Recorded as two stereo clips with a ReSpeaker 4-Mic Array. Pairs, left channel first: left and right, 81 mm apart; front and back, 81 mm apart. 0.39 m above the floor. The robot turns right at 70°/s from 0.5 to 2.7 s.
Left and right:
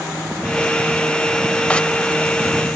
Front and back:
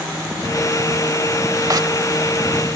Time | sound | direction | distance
1.7 | a zipper | 160° left | ?